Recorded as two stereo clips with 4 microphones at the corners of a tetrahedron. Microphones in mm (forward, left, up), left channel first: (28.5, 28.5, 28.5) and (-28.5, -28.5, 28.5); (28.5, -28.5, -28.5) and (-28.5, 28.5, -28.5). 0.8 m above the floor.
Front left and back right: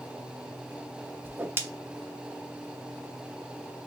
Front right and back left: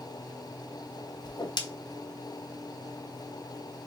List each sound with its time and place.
1.2 s a whoosh: 75° right, 0.5 m